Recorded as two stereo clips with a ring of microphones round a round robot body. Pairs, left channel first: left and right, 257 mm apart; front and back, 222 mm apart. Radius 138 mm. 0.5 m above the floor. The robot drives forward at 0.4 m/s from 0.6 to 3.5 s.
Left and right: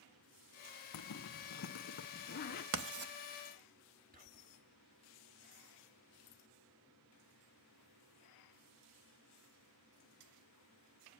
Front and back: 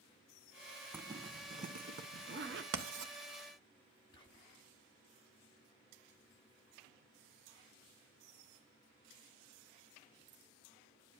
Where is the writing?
135° right, 0.5 m; by 3.1 s 145° right, 0.7 m.